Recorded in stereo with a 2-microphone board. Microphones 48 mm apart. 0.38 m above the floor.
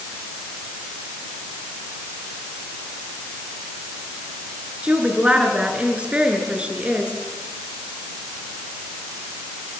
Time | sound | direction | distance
4.8 | a woman speaking | 25° right (ahead or behind) | 5 m